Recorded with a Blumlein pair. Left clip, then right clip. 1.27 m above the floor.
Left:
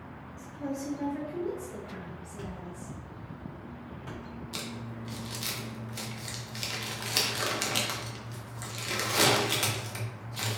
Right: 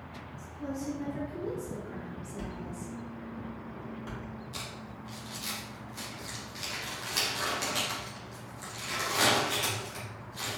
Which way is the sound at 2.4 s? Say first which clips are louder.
Right 1 dB; 10° right.